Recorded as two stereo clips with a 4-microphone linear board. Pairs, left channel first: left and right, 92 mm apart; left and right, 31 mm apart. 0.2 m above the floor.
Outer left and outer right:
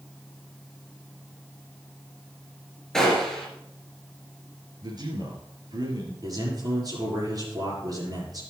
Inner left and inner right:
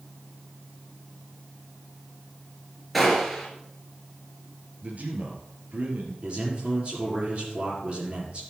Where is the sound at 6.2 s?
45° right (ahead or behind), 4.5 m.